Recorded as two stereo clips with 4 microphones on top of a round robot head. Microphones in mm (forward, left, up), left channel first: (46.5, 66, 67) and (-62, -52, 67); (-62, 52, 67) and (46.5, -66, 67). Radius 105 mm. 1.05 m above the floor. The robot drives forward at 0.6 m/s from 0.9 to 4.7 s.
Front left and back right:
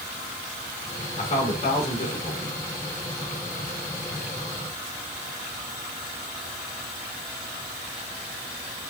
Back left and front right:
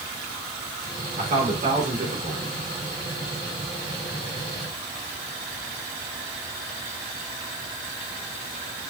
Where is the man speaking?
Straight ahead, 3 m.